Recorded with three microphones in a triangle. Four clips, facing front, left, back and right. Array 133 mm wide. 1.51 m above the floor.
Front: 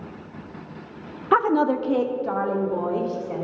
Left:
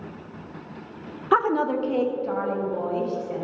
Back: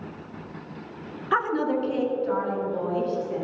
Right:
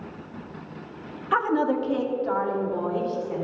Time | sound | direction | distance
1.3 | a woman speaking | 40° left | 1.0 m